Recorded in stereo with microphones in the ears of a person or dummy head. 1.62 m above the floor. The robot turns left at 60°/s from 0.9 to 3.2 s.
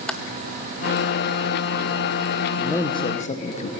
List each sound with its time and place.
0.1 s typing on a keyboard: 5° left (ahead or behind), 1.0 m
2.6 s a man speaking: straight behind, 1.2 m; by 3.7 s 140° left, 1.2 m